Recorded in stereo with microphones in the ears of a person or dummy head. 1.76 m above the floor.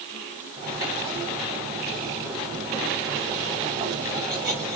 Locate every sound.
0.6 s cutlery clinking: 15° right (ahead or behind), 1.4 m